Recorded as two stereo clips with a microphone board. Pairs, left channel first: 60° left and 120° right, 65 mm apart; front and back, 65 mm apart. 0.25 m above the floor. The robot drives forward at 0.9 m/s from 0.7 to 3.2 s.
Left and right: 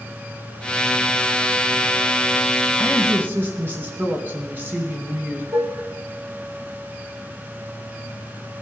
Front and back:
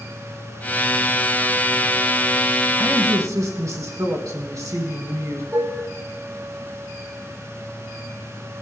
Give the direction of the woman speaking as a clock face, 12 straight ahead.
6 o'clock.